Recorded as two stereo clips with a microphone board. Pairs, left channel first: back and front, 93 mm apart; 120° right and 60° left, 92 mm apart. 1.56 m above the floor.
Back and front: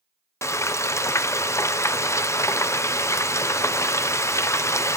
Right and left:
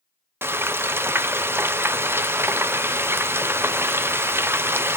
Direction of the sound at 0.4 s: 125° left.